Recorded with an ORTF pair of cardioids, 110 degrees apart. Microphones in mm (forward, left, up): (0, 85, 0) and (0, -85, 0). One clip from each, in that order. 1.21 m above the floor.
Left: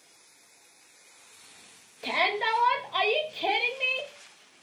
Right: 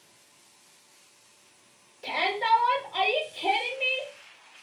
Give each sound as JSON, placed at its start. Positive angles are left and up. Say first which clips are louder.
{"t": 2.0, "sound": "a shout", "louder": "even", "azimuth_deg": 40, "distance_m": 1.8}